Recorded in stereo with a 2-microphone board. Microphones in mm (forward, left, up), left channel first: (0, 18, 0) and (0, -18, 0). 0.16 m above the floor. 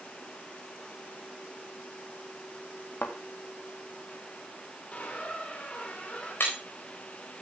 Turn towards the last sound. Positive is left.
turn(degrees=70)  # may be behind; listen again after turning